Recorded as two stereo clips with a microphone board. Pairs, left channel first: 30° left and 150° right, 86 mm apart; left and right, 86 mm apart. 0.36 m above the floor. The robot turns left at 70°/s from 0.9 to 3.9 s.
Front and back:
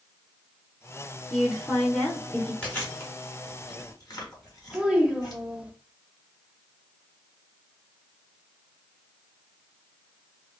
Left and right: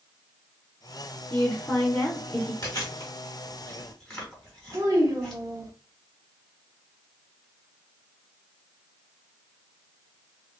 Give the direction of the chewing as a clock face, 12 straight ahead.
9 o'clock.